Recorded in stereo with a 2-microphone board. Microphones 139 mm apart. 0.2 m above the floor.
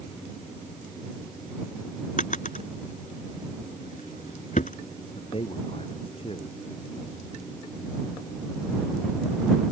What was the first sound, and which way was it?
A drawer, 65° left (ahead or behind).